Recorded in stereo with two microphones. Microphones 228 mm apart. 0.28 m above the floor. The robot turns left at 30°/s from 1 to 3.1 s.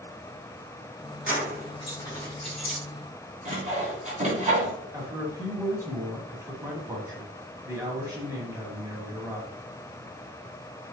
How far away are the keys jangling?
About 2.5 m.